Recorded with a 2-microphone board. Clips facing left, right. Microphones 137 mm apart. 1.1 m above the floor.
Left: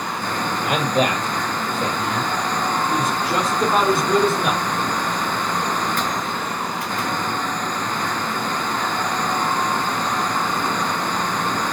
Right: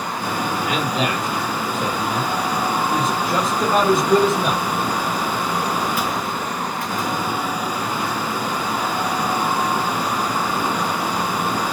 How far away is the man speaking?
About 1.8 m.